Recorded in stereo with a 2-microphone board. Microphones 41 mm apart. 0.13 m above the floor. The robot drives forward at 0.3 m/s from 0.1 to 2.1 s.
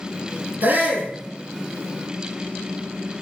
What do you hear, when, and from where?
0.6 s a shout: 45° right (ahead or behind), 3 m; by 1.1 s 50° right (ahead or behind), 2.5 m